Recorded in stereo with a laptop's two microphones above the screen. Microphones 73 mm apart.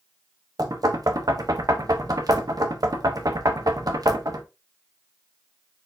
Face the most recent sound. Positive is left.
turn(degrees=-60)  # may be behind; listen again after turning